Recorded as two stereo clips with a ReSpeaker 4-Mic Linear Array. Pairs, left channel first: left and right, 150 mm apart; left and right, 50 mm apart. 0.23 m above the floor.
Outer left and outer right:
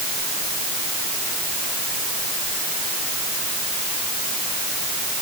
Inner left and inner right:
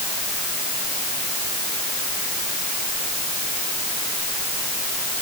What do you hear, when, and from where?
Only background noise.